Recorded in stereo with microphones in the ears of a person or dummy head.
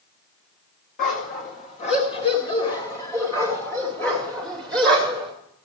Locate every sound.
1.0 s a dog barking: 45° left (ahead or behind), 1.8 m; by 5.3 s 5° left (ahead or behind), 3 m